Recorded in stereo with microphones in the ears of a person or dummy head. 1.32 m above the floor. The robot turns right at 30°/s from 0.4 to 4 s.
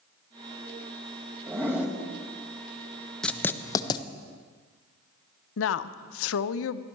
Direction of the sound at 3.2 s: 5° left (ahead or behind).